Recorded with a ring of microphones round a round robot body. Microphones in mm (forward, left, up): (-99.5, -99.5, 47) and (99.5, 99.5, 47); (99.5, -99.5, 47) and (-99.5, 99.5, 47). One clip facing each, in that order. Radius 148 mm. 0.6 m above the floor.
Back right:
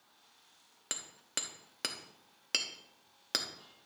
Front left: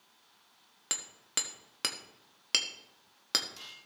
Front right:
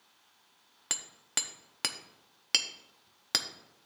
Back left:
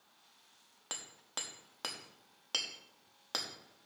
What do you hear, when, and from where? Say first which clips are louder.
0.9 s hammering: front left 1 dB, front right 3 dB; 35° right, 0.9 m